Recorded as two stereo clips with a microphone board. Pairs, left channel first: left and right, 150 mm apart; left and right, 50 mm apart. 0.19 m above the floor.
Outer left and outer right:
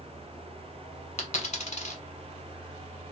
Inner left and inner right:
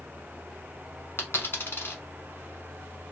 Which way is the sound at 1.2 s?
50° left (ahead or behind).